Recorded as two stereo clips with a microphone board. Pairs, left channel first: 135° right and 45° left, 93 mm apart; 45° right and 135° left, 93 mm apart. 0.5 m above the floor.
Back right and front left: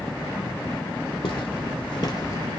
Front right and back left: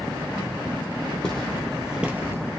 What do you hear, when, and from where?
1.2 s footsteps: 125° right, 1.1 m; by 2.4 s straight behind, 0.6 m